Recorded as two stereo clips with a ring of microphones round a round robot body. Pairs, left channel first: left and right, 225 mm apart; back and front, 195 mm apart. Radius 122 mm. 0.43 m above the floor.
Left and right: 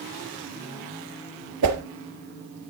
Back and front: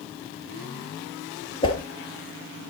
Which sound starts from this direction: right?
A whoosh, at 1.6 s.